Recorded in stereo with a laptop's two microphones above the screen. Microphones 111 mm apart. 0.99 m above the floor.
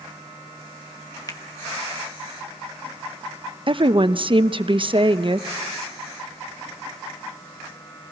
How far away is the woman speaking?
About 0.8 m.